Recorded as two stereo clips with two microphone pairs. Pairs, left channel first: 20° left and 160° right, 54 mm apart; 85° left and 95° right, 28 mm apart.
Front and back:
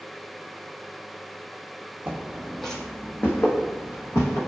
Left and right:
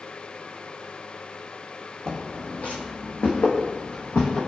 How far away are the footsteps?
About 0.6 m.